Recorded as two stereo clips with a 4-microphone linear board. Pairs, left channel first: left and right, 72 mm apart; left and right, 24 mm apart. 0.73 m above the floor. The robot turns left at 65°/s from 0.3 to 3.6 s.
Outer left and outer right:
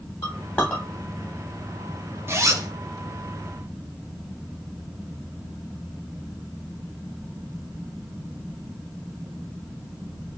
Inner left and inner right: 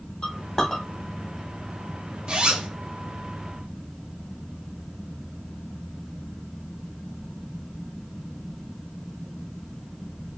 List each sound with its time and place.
0.2 s a clink: 45° left (ahead or behind), 1.4 m; by 2.2 s 75° right (ahead or behind), 1.4 m
2.3 s a zipper: 35° right (ahead or behind), 0.7 m; by 2.7 s 55° right (ahead or behind), 0.7 m